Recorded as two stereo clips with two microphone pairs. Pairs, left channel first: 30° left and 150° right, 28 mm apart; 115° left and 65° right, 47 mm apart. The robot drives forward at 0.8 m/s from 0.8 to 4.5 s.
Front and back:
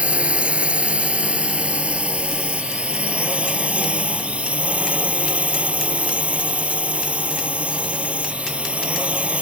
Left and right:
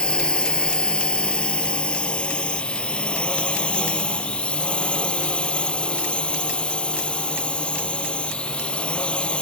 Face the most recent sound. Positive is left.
turn(degrees=180)